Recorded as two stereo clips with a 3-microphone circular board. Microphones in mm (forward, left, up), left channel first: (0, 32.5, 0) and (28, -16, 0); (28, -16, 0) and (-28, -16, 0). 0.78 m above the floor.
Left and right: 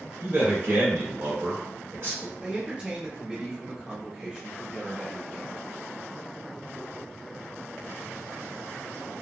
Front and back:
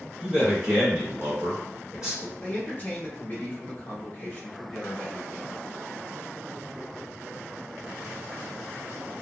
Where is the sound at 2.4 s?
10° right, 1.0 m.